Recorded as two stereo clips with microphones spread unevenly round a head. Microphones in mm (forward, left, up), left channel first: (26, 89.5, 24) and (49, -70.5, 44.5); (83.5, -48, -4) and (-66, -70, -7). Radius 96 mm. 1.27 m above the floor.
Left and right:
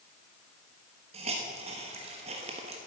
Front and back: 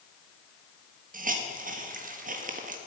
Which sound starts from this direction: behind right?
A hiss, at 1.1 s.